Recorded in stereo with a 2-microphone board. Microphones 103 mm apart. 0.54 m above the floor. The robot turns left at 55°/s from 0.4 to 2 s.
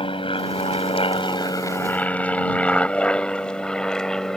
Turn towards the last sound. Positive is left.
turn(degrees=5)  # may be behind; listen again after turning